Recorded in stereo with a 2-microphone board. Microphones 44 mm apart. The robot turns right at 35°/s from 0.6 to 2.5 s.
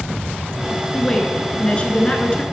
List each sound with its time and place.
0.9 s a woman speaking: 15° left (ahead or behind), 1.4 m; by 2.4 s 25° left (ahead or behind), 1.4 m